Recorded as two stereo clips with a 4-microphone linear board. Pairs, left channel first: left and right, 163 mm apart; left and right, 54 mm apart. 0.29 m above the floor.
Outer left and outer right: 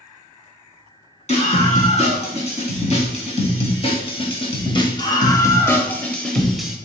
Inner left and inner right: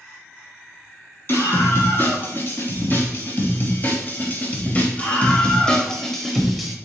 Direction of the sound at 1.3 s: 45° left (ahead or behind).